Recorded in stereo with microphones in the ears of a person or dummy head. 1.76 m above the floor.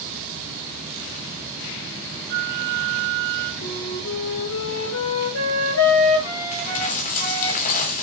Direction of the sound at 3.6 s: 85° left.